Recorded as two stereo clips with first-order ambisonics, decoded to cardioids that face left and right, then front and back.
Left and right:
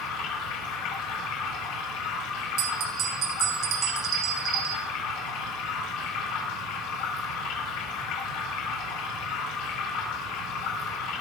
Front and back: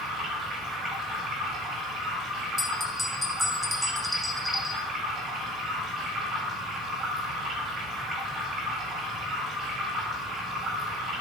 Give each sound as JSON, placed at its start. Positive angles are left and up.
{"t": 0.0, "sound": "running water", "azimuth_deg": 115, "distance_m": 7.0}
{"t": 2.6, "sound": "a bell", "azimuth_deg": -80, "distance_m": 0.9}